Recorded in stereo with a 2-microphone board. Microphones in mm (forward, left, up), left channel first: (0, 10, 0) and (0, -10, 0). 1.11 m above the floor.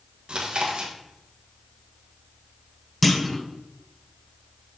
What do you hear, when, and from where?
0.3 s chewing: 55° right (ahead or behind), 1.4 m
3.0 s a clunk: 5° left (ahead or behind), 0.8 m